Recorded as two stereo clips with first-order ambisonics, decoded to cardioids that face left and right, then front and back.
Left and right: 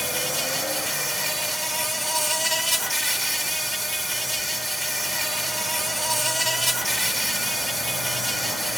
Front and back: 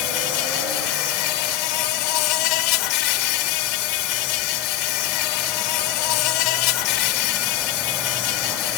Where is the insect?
Straight ahead, 0.9 m.